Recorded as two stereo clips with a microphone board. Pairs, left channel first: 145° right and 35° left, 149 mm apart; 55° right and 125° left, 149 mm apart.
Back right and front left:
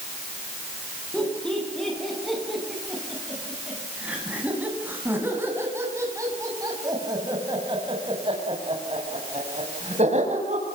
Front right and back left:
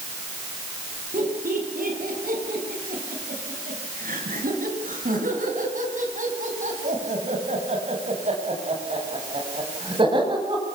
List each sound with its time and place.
1.1 s laughter: 130° left, 9.5 m; by 10.7 s 65° left, 6.5 m